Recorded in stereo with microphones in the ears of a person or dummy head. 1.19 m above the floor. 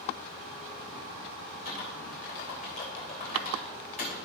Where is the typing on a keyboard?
45° left (ahead or behind), 2.5 m.